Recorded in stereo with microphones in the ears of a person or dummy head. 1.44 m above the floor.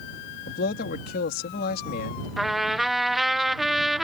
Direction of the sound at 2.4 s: Centre (ahead or behind).